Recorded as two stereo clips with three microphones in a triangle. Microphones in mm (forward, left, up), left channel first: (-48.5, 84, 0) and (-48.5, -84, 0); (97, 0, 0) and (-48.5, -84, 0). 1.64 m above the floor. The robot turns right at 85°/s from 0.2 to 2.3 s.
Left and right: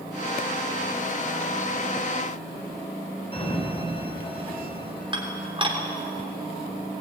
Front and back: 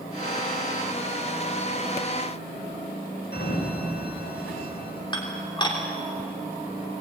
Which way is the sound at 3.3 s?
35° left.